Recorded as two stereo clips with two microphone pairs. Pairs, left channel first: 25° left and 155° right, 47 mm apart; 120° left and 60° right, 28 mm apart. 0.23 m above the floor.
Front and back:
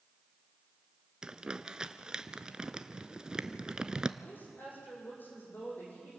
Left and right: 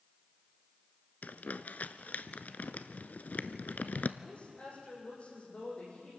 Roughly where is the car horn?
I don't hear a car horn.